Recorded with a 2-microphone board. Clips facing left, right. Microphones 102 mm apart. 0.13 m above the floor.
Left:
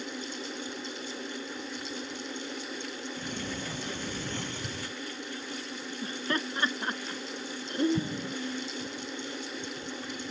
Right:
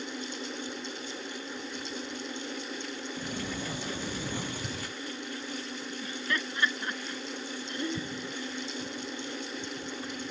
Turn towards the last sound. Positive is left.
turn(degrees=65)  # may be behind; listen again after turning